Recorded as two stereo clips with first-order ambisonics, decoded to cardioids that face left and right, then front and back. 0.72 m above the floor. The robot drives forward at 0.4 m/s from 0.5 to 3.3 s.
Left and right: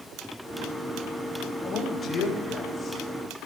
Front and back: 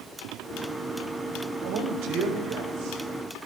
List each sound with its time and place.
1.6 s a man speaking: 155° left, 4 m; by 3.5 s 160° left, 4.5 m